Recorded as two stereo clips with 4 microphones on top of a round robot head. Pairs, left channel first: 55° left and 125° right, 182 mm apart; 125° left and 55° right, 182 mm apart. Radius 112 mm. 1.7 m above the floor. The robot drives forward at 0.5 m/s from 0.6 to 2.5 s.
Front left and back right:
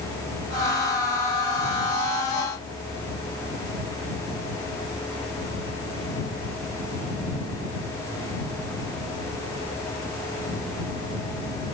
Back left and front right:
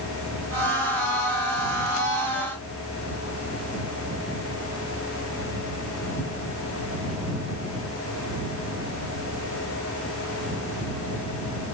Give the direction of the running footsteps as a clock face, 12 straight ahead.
I don't hear running footsteps.